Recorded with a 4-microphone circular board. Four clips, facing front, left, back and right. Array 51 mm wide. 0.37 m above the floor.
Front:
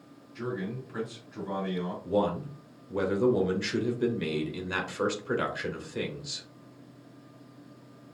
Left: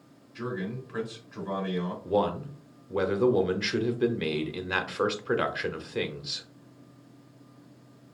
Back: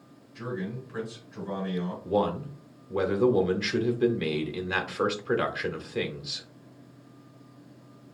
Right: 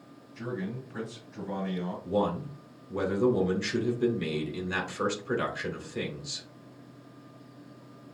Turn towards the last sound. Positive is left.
turn(degrees=115)